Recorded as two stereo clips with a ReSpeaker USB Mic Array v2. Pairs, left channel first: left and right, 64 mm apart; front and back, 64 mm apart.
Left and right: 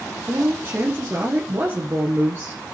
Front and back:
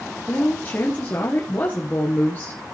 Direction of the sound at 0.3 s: 45° right.